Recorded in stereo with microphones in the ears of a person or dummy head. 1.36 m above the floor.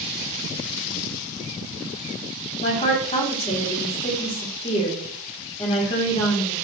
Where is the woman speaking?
40° left (ahead or behind), 1.3 m.